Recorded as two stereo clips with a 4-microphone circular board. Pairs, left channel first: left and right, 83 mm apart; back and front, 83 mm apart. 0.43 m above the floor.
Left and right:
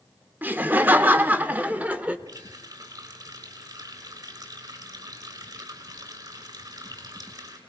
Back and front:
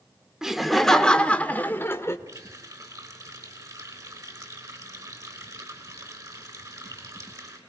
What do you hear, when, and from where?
0.4 s laughter: 75° right, 1.2 m; by 2.2 s 150° right, 1.4 m
2.3 s a running tap: 45° right, 4 m